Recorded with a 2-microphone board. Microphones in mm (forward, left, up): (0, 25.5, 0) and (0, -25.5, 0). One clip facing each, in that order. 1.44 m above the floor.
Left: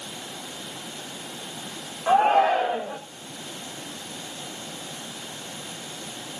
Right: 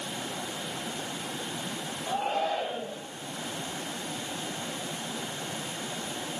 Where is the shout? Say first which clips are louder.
Left 11 dB; 85° left, 3 m.